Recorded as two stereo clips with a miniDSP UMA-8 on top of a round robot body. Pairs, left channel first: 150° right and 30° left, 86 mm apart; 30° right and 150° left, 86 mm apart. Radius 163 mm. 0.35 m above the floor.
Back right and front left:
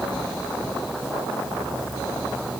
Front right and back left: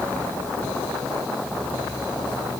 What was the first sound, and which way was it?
Only background noise.